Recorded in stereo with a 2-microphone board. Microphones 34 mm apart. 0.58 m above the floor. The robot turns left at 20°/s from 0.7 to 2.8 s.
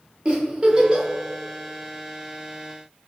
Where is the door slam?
No door slam in this recording.